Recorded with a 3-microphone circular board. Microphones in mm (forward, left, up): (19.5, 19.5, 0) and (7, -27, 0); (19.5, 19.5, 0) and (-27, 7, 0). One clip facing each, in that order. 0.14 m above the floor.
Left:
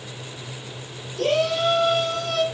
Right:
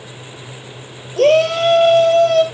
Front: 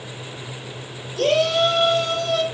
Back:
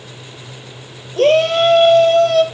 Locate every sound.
1.2 s a shout: 125° right, 3.5 m; by 2.4 s 145° right, 3.5 m